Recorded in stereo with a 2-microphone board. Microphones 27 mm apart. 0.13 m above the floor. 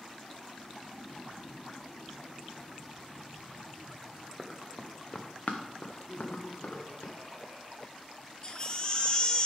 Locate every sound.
4.4 s running footsteps: centre (ahead or behind), 0.9 m; by 7.1 s 85° left, 1.5 m
6.1 s laughter: 45° right (ahead or behind), 2 m
8.4 s a baby crying: 35° left (ahead or behind), 0.6 m